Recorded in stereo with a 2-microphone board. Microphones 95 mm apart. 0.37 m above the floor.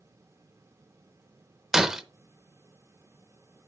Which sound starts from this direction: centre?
Breaking glass, at 1.7 s.